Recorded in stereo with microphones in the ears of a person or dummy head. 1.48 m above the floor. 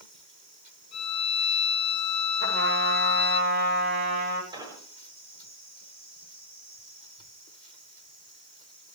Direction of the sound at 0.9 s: 30° left (ahead or behind).